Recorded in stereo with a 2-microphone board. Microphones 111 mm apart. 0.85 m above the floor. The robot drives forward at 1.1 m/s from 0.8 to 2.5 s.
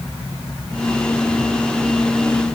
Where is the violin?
I don't hear a violin.